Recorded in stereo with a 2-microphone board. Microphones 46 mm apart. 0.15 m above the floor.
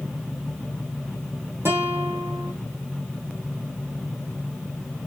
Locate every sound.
1.6 s a guitar: 65° right (ahead or behind), 1.6 m